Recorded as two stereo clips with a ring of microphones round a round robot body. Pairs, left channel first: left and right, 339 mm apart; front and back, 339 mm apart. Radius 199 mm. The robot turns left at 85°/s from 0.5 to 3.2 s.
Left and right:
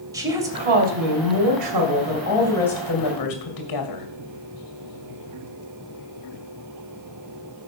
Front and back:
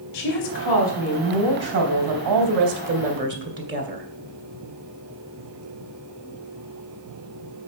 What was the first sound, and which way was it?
A woman speaking, 10° right.